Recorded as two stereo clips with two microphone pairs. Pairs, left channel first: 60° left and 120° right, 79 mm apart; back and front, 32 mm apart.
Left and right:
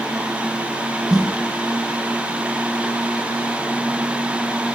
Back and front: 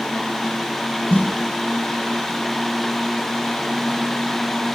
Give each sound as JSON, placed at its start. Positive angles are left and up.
{"t": 1.1, "sound": "a snare drum", "azimuth_deg": 155, "distance_m": 6.0}